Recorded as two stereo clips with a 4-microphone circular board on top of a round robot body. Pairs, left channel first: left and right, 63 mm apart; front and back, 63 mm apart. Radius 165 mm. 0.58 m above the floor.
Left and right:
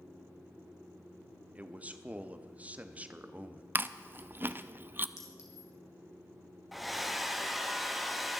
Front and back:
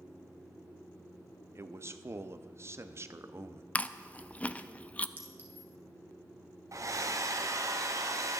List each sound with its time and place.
1.6 s a man speaking: 150° right, 1.0 m
3.8 s chewing: 55° right, 0.7 m
5.2 s a clink: 120° left, 2.5 m
6.7 s a hair dryer: straight behind, 1.6 m